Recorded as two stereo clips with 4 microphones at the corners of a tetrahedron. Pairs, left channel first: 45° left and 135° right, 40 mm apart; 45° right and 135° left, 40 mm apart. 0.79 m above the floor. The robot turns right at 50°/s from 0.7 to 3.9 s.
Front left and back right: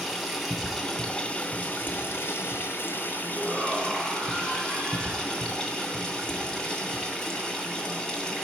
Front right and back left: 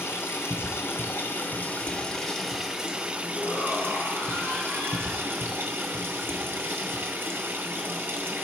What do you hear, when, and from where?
0.0 s running water: 50° right, 2.5 m; by 8.4 s 110° left, 2.5 m
3.3 s a shout: 30° right, 6 m; by 5.5 s straight ahead, 6 m